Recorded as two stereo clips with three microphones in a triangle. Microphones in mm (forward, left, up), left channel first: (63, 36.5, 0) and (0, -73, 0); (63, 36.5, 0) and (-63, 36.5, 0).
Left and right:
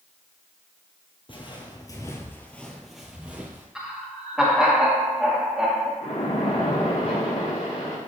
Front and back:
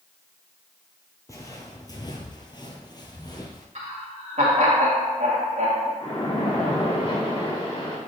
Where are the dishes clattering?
I don't hear dishes clattering.